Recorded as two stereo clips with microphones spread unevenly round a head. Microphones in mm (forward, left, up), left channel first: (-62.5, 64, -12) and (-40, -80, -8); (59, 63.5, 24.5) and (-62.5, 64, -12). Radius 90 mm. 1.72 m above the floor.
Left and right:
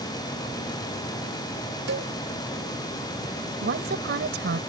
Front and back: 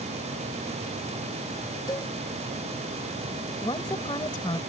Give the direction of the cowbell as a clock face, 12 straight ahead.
2 o'clock.